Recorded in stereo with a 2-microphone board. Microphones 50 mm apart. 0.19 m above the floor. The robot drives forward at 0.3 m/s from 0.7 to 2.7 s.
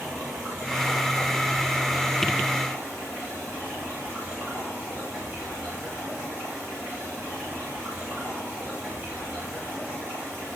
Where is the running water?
35° right (ahead or behind), 6.5 m; by 10.6 s 30° right (ahead or behind), 7 m.